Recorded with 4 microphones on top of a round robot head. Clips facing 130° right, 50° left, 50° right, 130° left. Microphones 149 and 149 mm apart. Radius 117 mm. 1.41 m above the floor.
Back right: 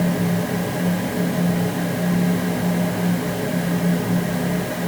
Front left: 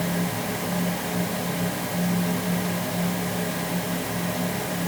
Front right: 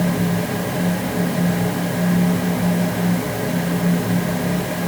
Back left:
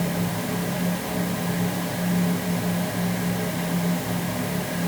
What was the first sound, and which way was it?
Only background noise.